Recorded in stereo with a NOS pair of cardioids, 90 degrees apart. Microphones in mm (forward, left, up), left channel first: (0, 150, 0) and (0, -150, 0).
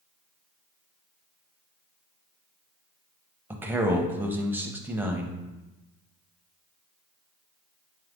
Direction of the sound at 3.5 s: 5° right.